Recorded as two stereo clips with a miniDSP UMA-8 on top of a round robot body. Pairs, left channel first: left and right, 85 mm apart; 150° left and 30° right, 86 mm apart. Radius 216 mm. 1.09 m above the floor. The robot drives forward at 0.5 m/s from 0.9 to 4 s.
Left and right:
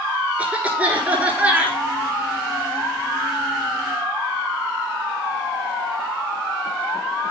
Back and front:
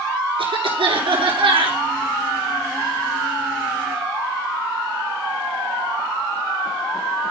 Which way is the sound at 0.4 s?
15° right.